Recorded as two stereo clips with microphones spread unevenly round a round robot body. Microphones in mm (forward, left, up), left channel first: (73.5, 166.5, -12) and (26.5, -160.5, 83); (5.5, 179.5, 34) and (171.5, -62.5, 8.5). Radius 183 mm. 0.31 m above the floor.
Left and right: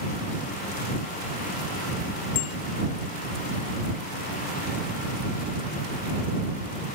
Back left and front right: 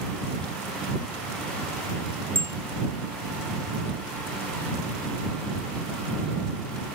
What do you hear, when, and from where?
2.4 s a bicycle bell: 45° left